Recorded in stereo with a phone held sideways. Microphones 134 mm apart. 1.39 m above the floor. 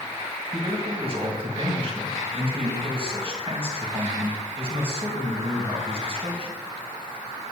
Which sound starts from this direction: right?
A man speaking, at 0.5 s.